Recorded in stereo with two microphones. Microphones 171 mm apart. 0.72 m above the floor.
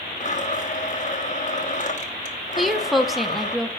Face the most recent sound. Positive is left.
turn(degrees=0)  # may be behind; listen again after turning